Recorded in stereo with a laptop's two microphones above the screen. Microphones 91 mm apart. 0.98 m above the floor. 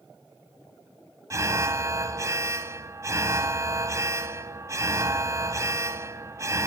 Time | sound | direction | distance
1.3 | an alarm | 35° right (ahead or behind) | 0.7 m